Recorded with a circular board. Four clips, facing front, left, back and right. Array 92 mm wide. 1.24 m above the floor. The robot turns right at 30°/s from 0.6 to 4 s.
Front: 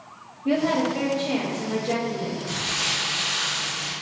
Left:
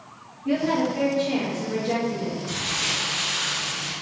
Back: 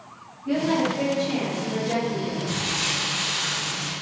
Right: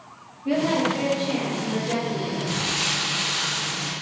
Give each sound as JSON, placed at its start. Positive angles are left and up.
{"t": 0.5, "sound": "a woman speaking", "azimuth_deg": -15, "distance_m": 0.8}
{"t": 2.5, "sound": "crumpling", "azimuth_deg": -85, "distance_m": 1.2}